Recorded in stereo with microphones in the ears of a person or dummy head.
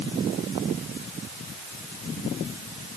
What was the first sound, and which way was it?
Only background noise.